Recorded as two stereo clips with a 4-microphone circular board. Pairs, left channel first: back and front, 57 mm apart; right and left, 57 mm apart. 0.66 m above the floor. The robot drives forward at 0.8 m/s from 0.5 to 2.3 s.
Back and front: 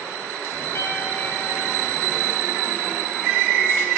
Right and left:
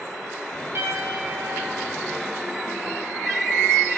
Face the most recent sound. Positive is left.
turn(degrees=140)